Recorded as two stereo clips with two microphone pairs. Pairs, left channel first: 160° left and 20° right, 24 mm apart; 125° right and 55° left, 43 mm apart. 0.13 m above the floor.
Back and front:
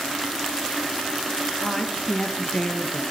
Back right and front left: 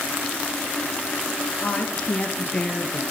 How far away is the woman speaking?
About 2 m.